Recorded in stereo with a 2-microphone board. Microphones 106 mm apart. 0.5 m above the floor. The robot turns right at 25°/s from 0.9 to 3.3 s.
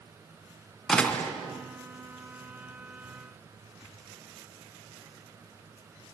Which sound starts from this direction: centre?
A door slam, at 0.9 s.